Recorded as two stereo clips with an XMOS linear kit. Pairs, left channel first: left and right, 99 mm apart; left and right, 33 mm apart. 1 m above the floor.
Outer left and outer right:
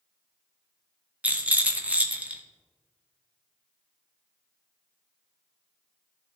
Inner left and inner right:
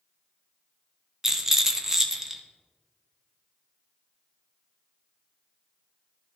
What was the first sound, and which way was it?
A rattle, 15° right (ahead or behind).